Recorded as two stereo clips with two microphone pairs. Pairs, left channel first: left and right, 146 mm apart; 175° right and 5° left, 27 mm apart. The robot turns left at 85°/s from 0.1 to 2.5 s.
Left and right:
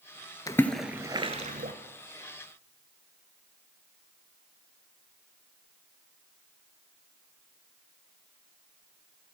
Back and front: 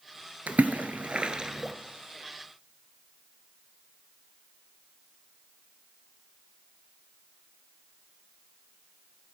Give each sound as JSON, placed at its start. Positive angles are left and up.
{"t": 0.5, "sound": "a splash", "azimuth_deg": 25, "distance_m": 0.5}